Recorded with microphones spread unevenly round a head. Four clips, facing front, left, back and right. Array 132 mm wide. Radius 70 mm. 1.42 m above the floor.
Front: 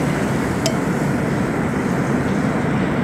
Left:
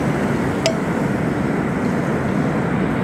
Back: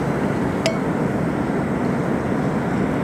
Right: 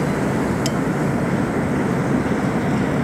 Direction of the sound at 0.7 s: 130° left.